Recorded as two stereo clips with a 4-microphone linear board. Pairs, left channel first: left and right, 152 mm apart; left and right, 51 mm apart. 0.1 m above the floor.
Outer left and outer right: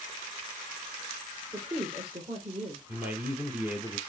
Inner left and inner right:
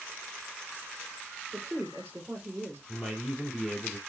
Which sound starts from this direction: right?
A woman speaking, at 1.5 s.